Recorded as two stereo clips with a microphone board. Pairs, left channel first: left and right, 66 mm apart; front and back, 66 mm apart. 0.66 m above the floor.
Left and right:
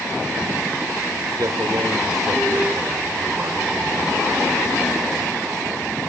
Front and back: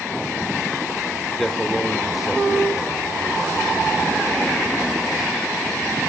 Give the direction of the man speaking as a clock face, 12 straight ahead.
3 o'clock.